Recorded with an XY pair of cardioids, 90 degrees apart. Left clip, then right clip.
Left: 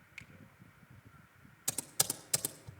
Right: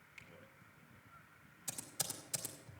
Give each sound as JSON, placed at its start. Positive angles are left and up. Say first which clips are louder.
{"t": 0.2, "sound": "a finger snap", "louder": "left 6 dB", "azimuth_deg": 45, "distance_m": 2.0}
{"t": 1.7, "sound": "typing on a keyboard", "louder": "left 8 dB", "azimuth_deg": 65, "distance_m": 1.9}